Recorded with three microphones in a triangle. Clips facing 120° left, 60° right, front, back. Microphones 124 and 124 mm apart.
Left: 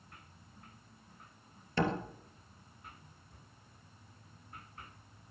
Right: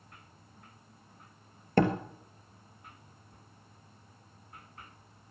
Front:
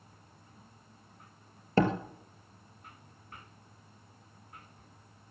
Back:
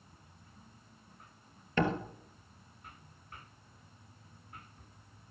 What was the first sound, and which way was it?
A door slam, 45° right.